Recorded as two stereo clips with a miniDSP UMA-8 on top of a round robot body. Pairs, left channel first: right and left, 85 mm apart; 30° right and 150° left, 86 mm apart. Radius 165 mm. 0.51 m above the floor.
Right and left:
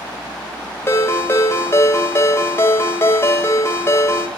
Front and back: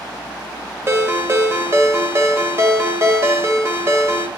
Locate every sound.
0.9 s a ringtone: 150° right, 1.6 m